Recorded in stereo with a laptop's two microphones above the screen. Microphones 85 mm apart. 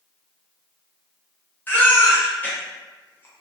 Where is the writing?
I don't hear writing.